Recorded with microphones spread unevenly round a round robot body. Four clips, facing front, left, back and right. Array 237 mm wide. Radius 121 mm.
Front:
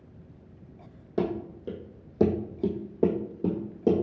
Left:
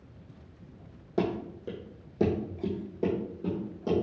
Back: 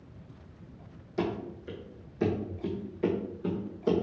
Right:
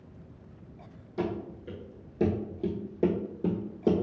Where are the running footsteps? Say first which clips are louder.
Left 3 dB, front 3 dB; 40° left, 1.4 m; by 4.0 s 35° right, 1.7 m.